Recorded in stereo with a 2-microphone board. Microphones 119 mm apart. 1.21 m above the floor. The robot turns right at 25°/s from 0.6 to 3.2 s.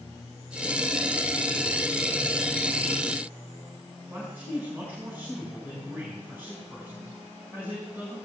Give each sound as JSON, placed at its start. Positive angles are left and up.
{"t": 4.1, "sound": "a man speaking", "side_deg": -20, "distance_m": 5.5}